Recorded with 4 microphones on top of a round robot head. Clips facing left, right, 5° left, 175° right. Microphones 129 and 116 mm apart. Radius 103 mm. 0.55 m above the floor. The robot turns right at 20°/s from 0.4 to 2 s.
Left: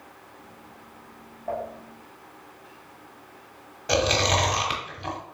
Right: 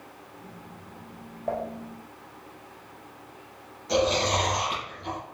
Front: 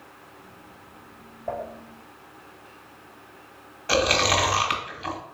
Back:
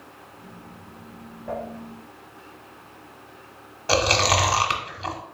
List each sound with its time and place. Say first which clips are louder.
1.5 s dishes clattering: right 1 dB, even; 55° right, 2 m; by 1.6 s 50° right, 2 m
3.9 s chewing: even, back 1 dB; 120° left, 0.9 m